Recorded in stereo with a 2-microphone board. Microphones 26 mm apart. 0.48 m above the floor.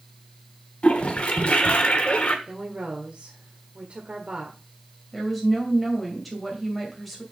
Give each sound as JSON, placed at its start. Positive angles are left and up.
{"t": 0.8, "sound": "a toilet flushing", "side_deg": 45, "distance_m": 1.2}
{"t": 2.5, "sound": "a woman speaking", "side_deg": -45, "distance_m": 1.5}
{"t": 5.1, "sound": "a woman speaking", "side_deg": 10, "distance_m": 3.0}